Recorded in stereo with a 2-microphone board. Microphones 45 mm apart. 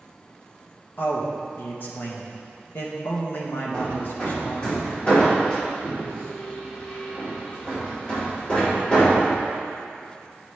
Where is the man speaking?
50° left (ahead or behind), 1.4 m.